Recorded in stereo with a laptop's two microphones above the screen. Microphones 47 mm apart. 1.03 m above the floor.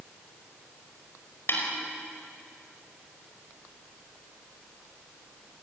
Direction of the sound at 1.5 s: 55° left (ahead or behind).